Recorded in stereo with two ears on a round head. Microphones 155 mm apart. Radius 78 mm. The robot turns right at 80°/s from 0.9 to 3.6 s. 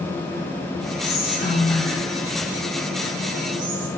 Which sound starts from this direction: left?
Whispering, at 1.0 s.